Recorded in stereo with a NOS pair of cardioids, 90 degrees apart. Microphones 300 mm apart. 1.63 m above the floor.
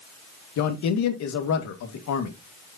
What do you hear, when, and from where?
0.6 s a man speaking: 65° left, 1.9 m